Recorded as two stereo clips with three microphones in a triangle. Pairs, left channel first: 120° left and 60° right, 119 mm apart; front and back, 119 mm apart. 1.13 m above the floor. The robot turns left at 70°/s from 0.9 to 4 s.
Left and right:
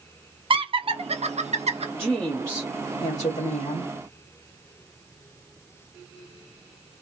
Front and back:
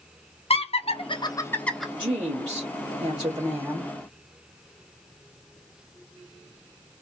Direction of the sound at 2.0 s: 135° right.